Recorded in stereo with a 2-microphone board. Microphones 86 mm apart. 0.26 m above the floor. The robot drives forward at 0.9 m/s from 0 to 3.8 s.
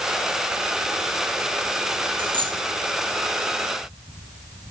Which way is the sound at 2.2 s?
75° right (ahead or behind).